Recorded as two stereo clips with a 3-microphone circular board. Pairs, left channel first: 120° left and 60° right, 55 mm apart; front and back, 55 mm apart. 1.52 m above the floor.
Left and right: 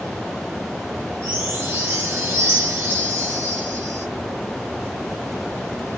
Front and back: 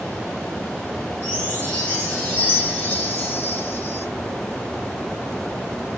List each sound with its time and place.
1.2 s a chime: 50° right, 1.4 m